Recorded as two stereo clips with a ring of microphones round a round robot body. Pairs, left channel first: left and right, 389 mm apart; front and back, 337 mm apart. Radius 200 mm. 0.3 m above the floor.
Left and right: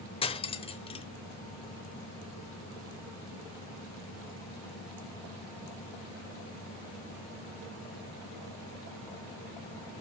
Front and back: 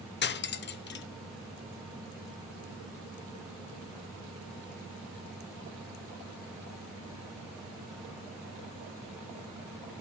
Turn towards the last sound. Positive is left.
turn(degrees=25)